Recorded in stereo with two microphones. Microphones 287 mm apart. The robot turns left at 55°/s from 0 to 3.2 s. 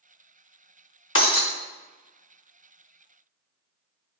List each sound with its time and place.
1.1 s breaking glass: 45° left (ahead or behind), 0.6 m; by 1.5 s 55° left (ahead or behind), 0.6 m